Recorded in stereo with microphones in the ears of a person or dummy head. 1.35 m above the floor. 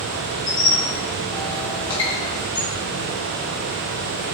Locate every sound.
0.5 s a squeak: 15° left (ahead or behind), 0.8 m